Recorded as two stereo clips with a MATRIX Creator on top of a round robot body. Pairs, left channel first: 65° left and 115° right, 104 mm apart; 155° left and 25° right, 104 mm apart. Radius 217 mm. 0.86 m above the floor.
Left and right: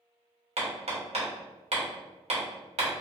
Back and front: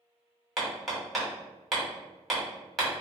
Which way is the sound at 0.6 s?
115° right.